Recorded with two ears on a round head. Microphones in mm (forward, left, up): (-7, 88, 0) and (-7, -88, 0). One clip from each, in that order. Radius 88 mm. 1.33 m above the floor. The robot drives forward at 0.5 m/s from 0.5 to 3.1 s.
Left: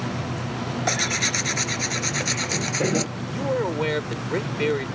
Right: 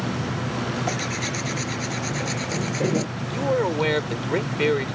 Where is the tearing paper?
50° left (ahead or behind); by 3.1 s 40° left (ahead or behind).